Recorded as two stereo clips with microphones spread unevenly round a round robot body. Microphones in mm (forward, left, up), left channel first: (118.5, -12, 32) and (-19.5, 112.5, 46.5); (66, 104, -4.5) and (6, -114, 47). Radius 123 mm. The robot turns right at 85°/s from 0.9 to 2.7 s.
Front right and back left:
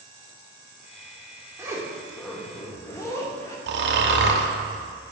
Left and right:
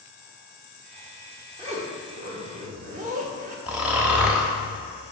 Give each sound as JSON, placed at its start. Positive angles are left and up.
{"t": 1.6, "sound": "a zipper", "azimuth_deg": -170, "distance_m": 1.3}
{"t": 3.7, "sound": "snoring", "azimuth_deg": 160, "distance_m": 0.9}